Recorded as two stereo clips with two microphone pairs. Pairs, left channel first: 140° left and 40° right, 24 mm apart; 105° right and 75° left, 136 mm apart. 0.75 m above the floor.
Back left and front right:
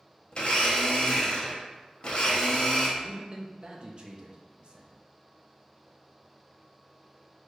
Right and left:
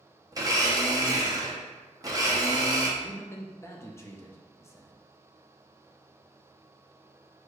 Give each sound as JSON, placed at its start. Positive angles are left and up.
{"t": 0.3, "sound": "a blender", "azimuth_deg": 125, "distance_m": 0.8}
{"t": 3.0, "sound": "a man speaking", "azimuth_deg": -45, "distance_m": 0.6}